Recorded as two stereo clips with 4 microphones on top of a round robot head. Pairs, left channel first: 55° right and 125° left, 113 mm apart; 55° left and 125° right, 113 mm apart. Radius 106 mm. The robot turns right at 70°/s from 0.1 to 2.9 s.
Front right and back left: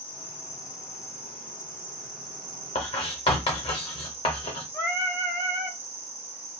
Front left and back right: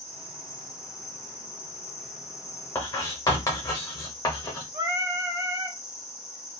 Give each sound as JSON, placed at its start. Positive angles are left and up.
{"t": 0.0, "sound": "an insect", "azimuth_deg": -100, "distance_m": 1.3}
{"t": 2.8, "sound": "writing", "azimuth_deg": -20, "distance_m": 0.7}
{"t": 4.7, "sound": "singing", "azimuth_deg": -105, "distance_m": 1.2}